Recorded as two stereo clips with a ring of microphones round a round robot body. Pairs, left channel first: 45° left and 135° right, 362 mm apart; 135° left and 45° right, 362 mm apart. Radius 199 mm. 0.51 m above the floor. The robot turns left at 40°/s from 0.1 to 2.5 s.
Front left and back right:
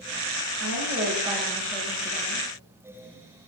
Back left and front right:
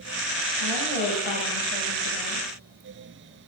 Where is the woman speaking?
175° left, 2.5 m; by 2.5 s 95° left, 2.5 m.